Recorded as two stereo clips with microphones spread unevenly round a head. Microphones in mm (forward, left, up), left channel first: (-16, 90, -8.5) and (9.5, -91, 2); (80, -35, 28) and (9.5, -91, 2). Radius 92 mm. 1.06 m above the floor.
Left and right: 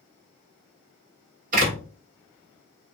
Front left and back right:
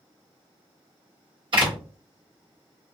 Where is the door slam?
130° right, 1.3 m.